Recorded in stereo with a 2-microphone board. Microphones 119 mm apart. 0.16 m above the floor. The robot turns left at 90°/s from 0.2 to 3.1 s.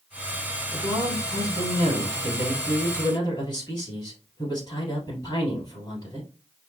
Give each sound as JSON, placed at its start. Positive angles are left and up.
{"t": 0.7, "sound": "a man speaking", "azimuth_deg": -5, "distance_m": 3.0}